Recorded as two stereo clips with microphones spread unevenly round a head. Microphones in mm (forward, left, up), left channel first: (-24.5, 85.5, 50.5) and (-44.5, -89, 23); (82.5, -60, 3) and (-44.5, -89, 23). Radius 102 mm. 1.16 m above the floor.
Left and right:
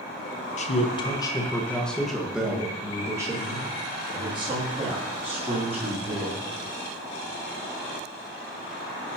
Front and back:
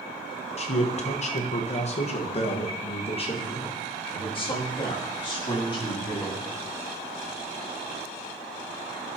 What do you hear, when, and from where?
0.6 s a man speaking: 30° left, 1.0 m; by 6.4 s 40° right, 3.5 m